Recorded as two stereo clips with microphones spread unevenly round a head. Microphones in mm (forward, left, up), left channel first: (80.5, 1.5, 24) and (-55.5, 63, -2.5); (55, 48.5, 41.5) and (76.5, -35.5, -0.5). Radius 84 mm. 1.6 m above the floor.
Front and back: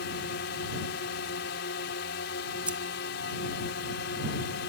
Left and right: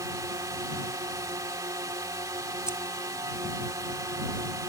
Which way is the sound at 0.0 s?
25° right.